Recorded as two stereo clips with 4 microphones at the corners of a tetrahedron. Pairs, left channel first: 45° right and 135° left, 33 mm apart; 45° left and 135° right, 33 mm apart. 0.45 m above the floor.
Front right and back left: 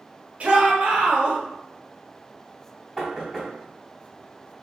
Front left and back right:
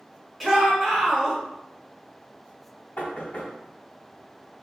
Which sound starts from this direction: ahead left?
Knocking, at 3.0 s.